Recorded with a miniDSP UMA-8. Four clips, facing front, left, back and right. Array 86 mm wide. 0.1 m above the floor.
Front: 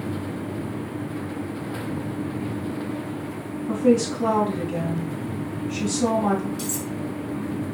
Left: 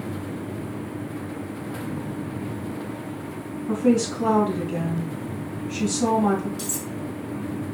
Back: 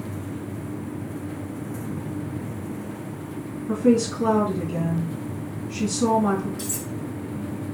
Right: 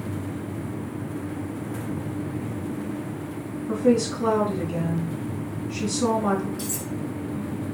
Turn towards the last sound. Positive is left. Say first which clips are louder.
# even, front 3 dB
turn(degrees=55)